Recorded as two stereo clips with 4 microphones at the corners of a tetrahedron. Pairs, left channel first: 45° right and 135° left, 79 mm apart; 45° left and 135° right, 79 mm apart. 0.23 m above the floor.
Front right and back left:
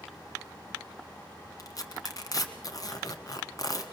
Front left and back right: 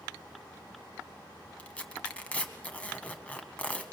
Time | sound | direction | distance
1.6 | tearing paper | 25° right | 1.7 m